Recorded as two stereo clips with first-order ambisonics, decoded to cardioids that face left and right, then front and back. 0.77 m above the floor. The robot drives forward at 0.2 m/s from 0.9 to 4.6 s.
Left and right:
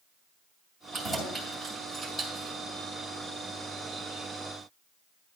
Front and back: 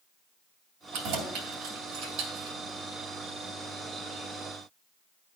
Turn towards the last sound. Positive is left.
turn(degrees=175)